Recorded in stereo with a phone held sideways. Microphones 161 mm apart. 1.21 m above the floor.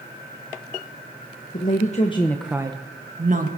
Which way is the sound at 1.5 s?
60° left (ahead or behind).